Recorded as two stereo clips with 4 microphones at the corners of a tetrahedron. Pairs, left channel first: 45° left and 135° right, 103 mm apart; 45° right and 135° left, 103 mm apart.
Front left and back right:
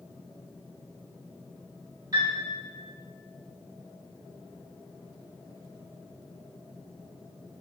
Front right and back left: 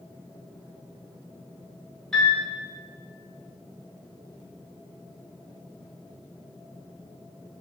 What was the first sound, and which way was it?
A piano, 125° right.